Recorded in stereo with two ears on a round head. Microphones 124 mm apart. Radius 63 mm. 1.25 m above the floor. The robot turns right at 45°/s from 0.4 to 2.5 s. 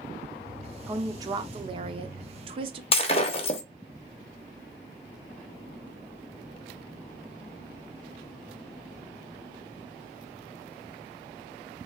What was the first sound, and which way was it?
A woman speaking, 150° right.